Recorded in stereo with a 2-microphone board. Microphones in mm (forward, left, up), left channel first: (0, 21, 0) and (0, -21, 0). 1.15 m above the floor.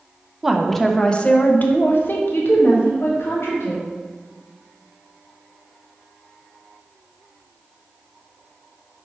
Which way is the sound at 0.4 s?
5° right (ahead or behind).